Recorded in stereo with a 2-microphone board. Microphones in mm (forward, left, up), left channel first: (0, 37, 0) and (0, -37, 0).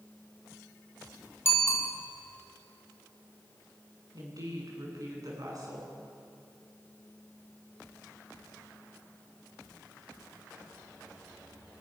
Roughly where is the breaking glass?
I don't hear breaking glass.